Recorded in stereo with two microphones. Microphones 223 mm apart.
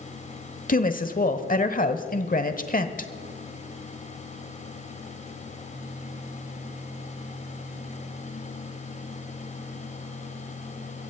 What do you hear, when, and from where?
0.7 s a woman speaking: 40° left (ahead or behind), 1.0 m